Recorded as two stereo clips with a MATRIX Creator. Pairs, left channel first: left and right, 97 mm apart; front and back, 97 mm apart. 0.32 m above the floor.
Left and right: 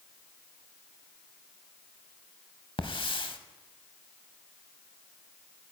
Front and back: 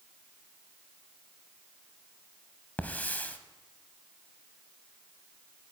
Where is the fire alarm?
No fire alarm in this recording.